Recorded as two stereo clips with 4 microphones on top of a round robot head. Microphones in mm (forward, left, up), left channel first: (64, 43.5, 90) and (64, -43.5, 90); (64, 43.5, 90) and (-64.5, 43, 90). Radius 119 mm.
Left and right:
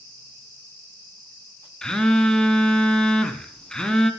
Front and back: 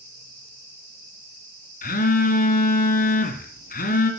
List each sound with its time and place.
1.8 s a phone buzzing: 5° left, 1.6 m